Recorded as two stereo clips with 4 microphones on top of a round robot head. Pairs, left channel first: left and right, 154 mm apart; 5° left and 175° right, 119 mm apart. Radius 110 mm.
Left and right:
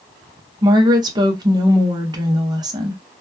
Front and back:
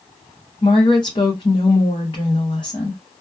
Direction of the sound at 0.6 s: 40° right.